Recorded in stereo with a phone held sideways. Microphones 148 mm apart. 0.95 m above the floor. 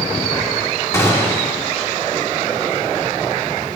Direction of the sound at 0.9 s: 20° left (ahead or behind).